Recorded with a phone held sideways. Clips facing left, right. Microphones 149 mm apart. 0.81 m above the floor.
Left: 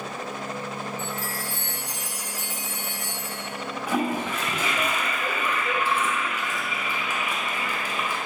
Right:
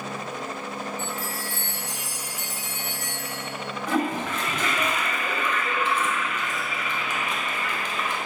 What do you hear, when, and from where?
1.0 s a chime: 75° right (ahead or behind), 1.0 m
3.9 s a toilet flushing: 10° left (ahead or behind), 0.6 m